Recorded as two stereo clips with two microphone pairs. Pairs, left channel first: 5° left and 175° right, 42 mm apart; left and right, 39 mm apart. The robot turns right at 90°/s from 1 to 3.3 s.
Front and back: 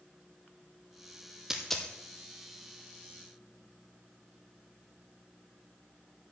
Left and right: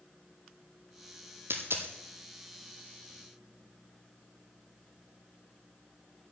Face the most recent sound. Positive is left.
turn(degrees=60)